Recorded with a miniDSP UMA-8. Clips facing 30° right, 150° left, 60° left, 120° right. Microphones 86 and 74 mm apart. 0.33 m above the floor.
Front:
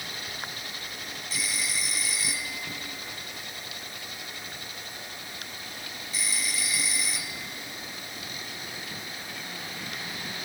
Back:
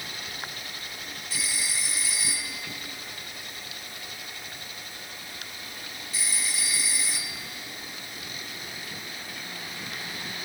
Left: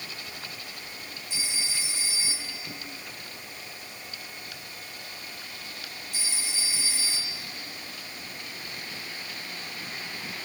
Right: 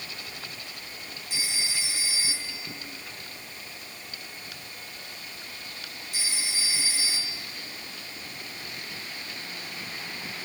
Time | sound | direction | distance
1.3 | a phone ringing | 150° right | 5.5 m